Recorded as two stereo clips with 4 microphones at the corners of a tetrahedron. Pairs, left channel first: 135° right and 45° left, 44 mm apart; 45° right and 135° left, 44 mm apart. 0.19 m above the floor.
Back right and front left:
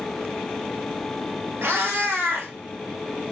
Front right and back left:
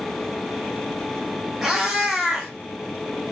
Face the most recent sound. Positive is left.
turn(degrees=55)